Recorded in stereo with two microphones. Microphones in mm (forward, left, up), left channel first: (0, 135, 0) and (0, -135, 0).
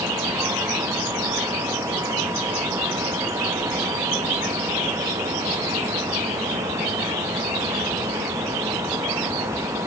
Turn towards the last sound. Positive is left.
No sound to turn to.